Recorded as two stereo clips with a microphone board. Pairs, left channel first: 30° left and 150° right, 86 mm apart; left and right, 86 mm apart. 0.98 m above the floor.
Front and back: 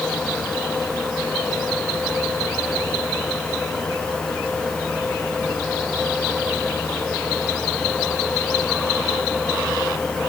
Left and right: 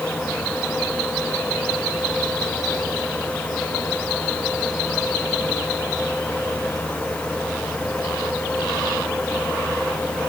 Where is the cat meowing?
No cat meowing in this recording.